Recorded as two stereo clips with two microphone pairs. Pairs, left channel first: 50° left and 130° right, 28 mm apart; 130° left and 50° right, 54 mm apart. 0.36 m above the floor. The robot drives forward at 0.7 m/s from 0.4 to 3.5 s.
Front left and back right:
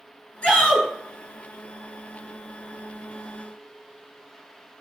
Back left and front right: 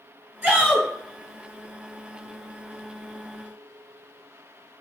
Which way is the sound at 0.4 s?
10° left.